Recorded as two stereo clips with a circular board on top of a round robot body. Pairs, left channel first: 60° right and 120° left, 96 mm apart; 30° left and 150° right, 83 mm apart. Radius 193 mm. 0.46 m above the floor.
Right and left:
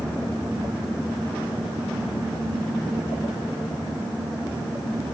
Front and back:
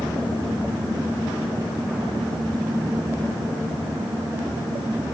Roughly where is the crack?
I don't hear a crack.